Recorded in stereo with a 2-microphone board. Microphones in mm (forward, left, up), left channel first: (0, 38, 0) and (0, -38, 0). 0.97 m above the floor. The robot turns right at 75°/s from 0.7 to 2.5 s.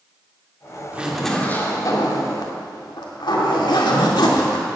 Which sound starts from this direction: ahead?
A zipper, at 0.9 s.